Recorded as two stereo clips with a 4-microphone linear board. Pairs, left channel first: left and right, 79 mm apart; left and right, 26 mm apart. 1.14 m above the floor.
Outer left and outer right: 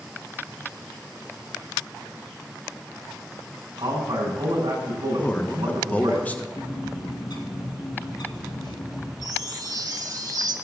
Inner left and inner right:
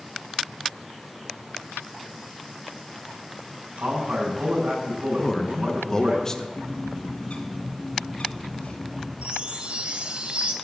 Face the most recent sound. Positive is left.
turn(degrees=-55)  # may be behind; listen again after turning